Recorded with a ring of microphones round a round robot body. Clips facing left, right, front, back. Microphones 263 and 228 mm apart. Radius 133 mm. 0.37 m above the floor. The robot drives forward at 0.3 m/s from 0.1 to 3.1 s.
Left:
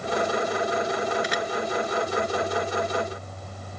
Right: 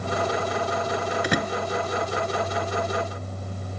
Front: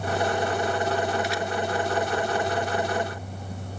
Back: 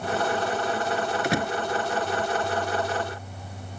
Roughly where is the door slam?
Behind right.